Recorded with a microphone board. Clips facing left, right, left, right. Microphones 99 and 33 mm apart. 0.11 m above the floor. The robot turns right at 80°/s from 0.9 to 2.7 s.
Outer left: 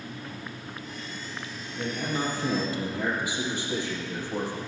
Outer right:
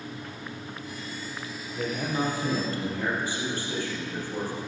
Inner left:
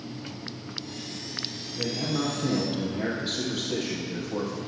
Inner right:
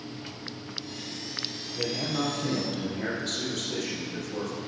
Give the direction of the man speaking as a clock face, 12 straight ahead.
2 o'clock.